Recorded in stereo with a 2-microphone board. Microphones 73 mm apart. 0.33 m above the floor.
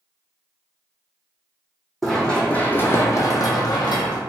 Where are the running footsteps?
5° left (ahead or behind), 0.9 m; by 4.2 s 75° left (ahead or behind), 0.9 m.